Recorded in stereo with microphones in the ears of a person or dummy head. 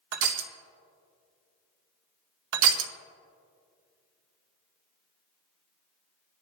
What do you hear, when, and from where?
0.1 s crushing: 70° right (ahead or behind), 0.9 m
2.5 s crushing: 75° right (ahead or behind), 0.9 m